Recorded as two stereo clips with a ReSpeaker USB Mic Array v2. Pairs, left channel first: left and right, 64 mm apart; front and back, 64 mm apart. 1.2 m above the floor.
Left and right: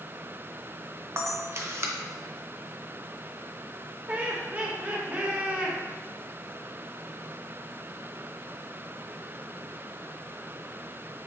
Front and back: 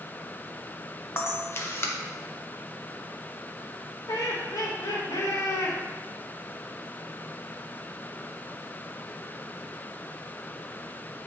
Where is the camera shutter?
50° right, 0.6 m.